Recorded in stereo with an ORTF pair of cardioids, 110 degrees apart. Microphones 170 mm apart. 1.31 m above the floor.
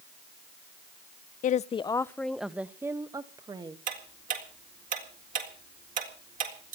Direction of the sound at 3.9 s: 50° right.